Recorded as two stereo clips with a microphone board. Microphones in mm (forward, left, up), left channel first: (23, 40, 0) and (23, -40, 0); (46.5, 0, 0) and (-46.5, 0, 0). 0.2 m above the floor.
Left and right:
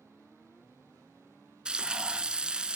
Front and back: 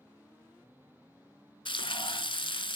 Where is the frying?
10° right, 0.8 m.